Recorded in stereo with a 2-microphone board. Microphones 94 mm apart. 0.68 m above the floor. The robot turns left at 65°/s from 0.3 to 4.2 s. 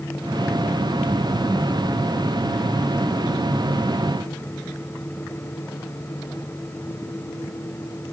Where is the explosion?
No explosion in this recording.